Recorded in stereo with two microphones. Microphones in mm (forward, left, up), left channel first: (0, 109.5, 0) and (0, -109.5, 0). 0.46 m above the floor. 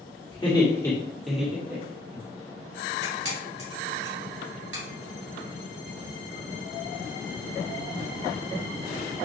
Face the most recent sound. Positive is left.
turn(degrees=-75)  # may be behind; listen again after turning